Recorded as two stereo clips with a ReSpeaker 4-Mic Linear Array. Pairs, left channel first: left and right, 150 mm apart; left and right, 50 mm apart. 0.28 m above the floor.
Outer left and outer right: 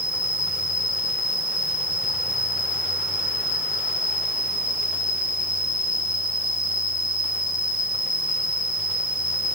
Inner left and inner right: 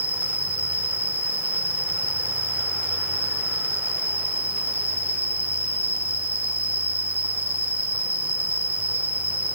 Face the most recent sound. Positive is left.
turn(degrees=-35)  # may be behind; listen again after turning